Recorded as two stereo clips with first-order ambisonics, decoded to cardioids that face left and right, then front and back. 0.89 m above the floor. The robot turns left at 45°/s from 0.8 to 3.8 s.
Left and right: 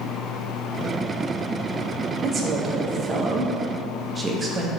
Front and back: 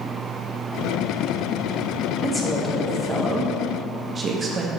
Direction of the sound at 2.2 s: 70° right.